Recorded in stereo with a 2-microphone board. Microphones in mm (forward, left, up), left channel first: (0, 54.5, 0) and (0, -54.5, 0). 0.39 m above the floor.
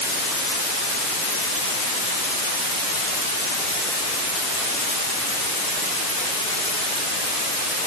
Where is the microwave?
I don't hear a microwave.